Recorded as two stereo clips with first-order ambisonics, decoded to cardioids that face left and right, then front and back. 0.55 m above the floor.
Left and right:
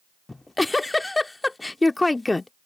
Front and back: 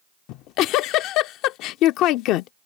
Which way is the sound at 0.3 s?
10° left.